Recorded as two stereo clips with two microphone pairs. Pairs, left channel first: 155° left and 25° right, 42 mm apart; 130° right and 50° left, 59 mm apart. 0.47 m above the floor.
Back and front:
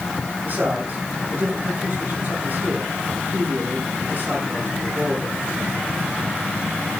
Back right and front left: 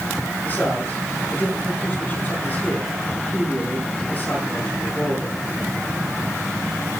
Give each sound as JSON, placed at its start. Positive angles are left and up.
{"t": 0.5, "sound": "a man speaking", "azimuth_deg": -70, "distance_m": 7.5}